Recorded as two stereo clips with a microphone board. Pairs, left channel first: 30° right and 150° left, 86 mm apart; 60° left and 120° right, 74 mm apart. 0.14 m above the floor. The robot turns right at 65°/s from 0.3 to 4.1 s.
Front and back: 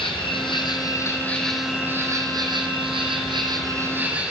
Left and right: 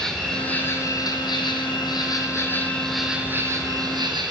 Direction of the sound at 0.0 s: 25° right.